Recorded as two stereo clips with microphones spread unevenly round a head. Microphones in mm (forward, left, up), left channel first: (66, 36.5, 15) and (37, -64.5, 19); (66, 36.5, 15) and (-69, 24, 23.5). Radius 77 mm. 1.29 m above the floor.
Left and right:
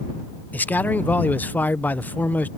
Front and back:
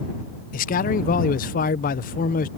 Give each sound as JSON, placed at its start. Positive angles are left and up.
{"t": 0.5, "sound": "a man speaking", "azimuth_deg": 0}